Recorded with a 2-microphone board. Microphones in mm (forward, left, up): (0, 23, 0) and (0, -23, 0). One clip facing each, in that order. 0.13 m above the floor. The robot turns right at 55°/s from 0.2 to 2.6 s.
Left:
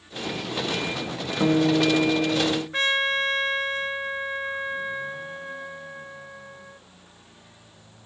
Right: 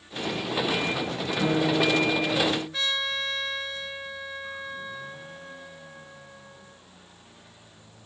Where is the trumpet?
35° left (ahead or behind), 0.9 m.